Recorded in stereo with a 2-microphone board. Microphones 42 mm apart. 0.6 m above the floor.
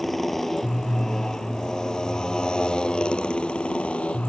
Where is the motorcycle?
5° left (ahead or behind); by 4.3 s 30° left (ahead or behind).